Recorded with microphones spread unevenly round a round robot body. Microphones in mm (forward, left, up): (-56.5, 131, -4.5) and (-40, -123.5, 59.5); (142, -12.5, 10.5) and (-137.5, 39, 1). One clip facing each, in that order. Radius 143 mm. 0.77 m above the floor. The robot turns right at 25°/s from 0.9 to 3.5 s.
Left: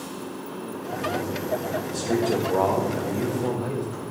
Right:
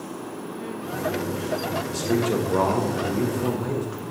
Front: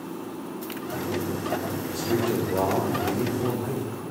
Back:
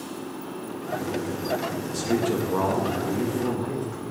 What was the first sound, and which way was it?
A man speaking, 175° left.